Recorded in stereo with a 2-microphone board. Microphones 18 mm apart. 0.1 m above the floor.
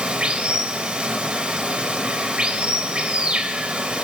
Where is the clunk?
No clunk in this recording.